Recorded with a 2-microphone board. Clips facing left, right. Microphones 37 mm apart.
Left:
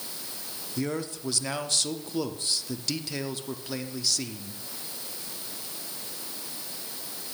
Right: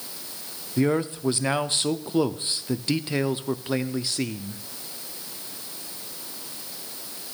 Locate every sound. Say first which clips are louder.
0.8 s a man speaking: right 8 dB; 30° right (ahead or behind), 0.7 m